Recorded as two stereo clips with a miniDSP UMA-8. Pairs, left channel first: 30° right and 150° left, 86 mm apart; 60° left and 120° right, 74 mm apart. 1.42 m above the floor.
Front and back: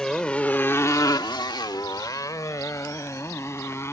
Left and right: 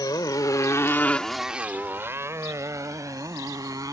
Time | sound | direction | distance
0.0 | a motorcycle | 50° left | ?